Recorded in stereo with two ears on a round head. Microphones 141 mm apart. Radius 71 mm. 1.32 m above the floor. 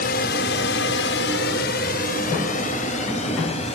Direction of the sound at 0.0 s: 55° left (ahead or behind).